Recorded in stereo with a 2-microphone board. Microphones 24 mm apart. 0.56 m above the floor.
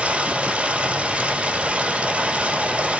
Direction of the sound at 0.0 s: 65° right (ahead or behind).